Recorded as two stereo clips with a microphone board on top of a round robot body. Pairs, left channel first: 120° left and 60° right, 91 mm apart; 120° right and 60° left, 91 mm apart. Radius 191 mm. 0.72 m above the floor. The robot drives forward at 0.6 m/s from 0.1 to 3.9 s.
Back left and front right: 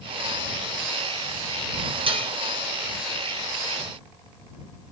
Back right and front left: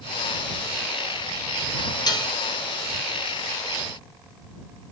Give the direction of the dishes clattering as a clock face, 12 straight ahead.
3 o'clock.